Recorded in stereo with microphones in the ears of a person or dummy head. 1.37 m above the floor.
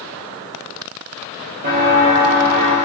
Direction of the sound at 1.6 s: 50° right (ahead or behind).